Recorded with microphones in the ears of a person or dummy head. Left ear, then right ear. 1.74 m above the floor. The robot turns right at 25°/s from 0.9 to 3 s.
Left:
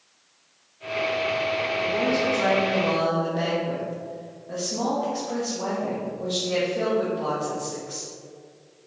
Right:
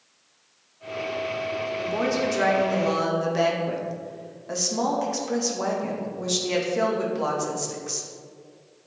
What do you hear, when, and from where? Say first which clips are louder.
1.8 s a woman speaking: even; 145° right, 2 m; by 8.1 s 115° right, 2 m